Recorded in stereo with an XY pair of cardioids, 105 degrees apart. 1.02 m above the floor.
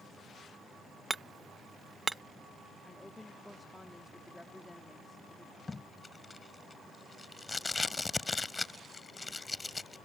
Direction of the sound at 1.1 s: 10° right.